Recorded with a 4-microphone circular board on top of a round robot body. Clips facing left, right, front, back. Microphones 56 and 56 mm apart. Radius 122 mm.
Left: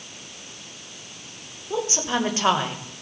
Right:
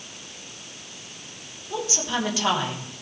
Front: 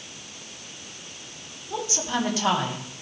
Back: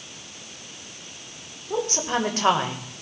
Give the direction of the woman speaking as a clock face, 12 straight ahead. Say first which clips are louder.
Left 3 dB, back 3 dB; 7 o'clock.